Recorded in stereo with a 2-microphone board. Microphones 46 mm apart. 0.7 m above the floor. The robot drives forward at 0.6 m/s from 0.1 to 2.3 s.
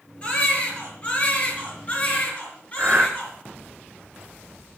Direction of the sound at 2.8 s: 25° right (ahead or behind).